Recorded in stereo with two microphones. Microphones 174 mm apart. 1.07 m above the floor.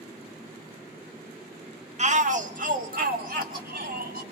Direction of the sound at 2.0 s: 40° right (ahead or behind).